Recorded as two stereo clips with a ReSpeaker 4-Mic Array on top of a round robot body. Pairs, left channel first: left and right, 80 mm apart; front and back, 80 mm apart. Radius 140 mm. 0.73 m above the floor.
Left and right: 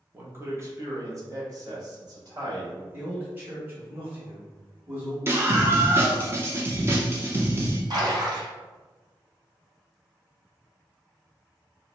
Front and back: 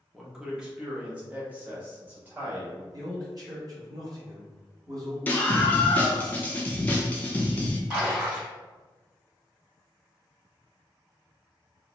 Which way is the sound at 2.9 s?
150° right.